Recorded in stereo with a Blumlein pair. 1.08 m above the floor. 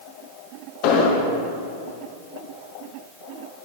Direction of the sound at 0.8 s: 45° left.